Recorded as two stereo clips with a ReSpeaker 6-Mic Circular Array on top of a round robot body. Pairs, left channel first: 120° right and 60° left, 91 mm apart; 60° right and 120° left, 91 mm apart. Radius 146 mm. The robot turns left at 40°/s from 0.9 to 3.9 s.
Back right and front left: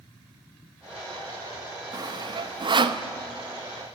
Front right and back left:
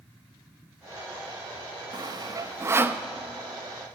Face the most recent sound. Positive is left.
turn(degrees=15)